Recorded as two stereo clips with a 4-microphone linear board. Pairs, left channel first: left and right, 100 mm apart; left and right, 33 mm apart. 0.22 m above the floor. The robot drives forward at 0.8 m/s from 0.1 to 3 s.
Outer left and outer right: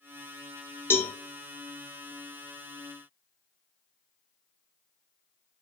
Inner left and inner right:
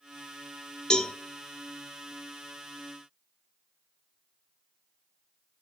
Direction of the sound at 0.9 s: 25° left (ahead or behind).